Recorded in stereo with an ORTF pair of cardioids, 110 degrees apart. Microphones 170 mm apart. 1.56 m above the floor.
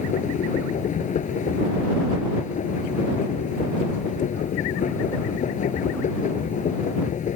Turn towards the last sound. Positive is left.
turn(degrees=45)